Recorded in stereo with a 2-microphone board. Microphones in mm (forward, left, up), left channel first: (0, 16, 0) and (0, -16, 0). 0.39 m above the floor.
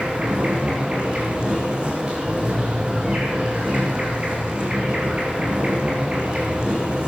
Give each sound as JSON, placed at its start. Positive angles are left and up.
{"t": 0.0, "sound": "an insect", "side_deg": -35, "distance_m": 6.5}